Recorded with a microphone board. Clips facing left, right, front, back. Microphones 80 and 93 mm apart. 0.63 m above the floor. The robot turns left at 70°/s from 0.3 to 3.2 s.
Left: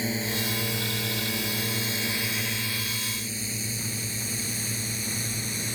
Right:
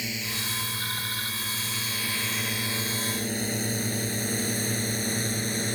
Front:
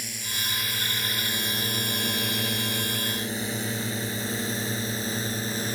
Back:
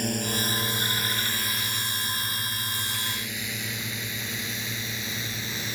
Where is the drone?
145° left; by 5.8 s 50° right.